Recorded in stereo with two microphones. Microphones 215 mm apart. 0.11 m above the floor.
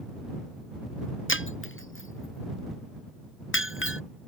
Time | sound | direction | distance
1.3 | breaking glass | 65° left (ahead or behind) | ?